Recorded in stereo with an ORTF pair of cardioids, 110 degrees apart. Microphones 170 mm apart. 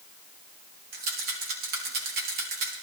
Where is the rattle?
65° right, 4 m.